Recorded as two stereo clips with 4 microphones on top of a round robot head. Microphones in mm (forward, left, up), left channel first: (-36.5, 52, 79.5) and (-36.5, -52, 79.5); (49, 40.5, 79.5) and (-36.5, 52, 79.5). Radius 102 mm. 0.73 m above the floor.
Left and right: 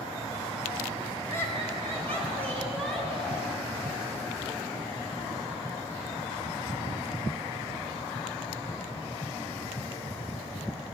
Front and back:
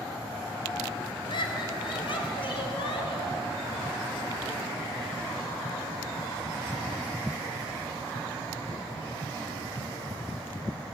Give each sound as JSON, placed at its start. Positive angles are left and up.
{"t": 1.3, "sound": "laughter", "azimuth_deg": 20, "distance_m": 4.5}